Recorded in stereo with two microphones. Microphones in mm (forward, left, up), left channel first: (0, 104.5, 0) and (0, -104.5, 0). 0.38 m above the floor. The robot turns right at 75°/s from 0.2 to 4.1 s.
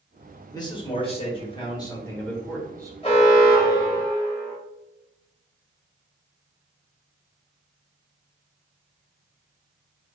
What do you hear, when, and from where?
0.5 s a man speaking: 15° left (ahead or behind), 1.1 m; by 2.9 s 15° right (ahead or behind), 1.1 m
3.0 s an alarm: 45° left, 1.0 m; by 4.5 s 125° left, 1.0 m